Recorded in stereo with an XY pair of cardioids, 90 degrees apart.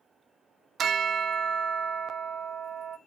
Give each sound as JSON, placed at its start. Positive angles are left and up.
{"t": 0.8, "sound": "a bell", "azimuth_deg": -65, "distance_m": 0.6}